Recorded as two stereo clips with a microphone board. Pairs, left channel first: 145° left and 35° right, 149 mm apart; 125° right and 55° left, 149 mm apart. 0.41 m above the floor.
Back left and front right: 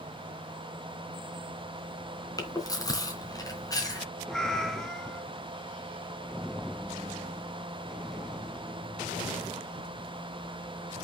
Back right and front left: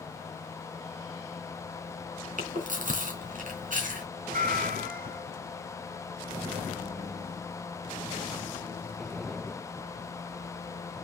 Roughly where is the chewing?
Left.